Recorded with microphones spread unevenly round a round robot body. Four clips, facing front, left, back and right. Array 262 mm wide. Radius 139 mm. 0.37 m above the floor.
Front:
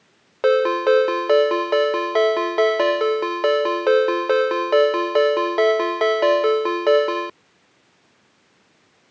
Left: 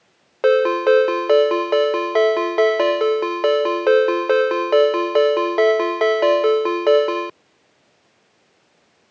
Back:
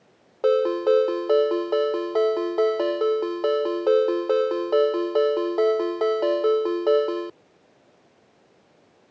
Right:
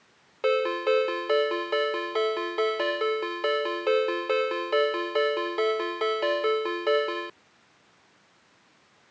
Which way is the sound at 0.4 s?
105° left.